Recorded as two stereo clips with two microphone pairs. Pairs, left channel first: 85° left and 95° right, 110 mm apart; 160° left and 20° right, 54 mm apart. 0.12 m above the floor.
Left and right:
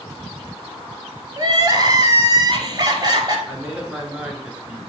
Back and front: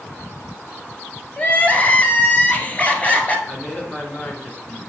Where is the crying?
145° right, 1.2 m.